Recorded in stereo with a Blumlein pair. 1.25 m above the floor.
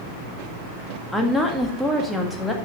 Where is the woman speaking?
5° left, 1.7 m.